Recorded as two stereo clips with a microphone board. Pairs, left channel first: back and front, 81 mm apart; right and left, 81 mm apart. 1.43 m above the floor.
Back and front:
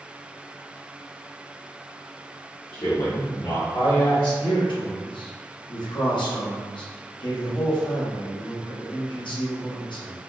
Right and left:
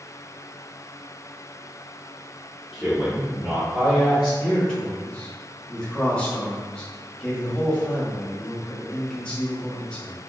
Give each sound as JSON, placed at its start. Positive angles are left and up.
{"t": 2.7, "sound": "a man speaking", "azimuth_deg": 165, "distance_m": 0.8}
{"t": 4.4, "sound": "a man speaking", "azimuth_deg": -170, "distance_m": 1.0}